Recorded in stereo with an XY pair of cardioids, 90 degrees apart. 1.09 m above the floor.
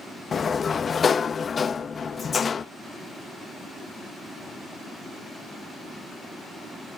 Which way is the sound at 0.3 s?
45° left.